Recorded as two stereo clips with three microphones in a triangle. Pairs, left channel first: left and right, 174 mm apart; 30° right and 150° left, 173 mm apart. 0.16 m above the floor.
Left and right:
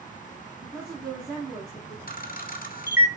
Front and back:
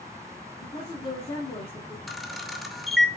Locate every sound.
0.6 s a woman speaking: 5° left, 1.3 m
2.1 s a camera shutter: 60° left, 0.7 m